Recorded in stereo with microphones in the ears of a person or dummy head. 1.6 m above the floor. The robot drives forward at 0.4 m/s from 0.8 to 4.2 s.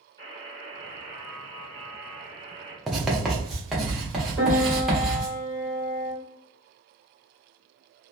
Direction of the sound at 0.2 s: 15° left (ahead or behind).